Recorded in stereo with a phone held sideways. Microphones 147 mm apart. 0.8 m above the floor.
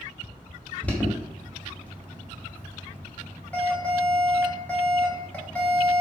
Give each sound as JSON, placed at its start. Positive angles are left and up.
{"t": 0.8, "sound": "an alarm", "side_deg": 10, "distance_m": 0.8}